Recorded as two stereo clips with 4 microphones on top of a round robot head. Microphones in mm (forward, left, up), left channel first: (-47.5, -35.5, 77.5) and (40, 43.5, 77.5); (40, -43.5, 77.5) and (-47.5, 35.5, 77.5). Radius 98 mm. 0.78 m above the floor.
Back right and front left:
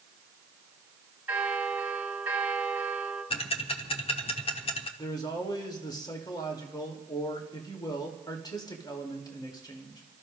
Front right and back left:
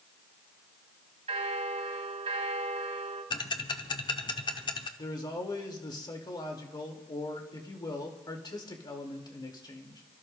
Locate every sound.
1.3 s a bell: 120° left, 2.5 m
3.3 s ticking: 95° right, 0.9 m
5.0 s a man speaking: 90° right, 2.0 m